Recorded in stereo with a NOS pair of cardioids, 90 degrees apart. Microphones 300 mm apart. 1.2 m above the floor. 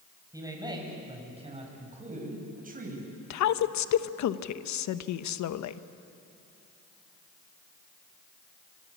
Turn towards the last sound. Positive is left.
turn(degrees=65)